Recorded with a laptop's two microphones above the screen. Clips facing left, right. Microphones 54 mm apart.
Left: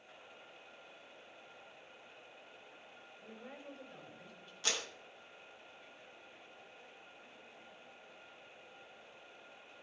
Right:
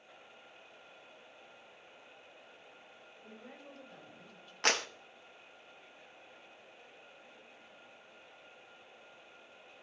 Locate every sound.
3.2 s a woman speaking: 10° left (ahead or behind), 5.5 m; by 4.5 s centre (ahead or behind), 6 m
4.6 s a clap: 60° right (ahead or behind), 0.7 m